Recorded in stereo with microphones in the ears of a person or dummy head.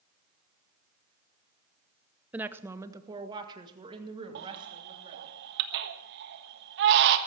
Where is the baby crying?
60° right (ahead or behind), 1.3 m.